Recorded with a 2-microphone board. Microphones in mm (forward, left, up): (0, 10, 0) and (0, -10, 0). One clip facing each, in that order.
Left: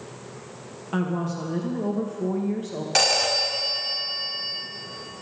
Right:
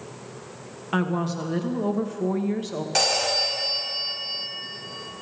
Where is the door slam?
No door slam in this recording.